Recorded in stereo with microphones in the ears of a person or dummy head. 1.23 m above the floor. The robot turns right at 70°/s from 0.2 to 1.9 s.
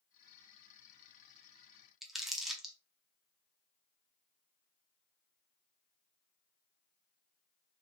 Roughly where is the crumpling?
Centre.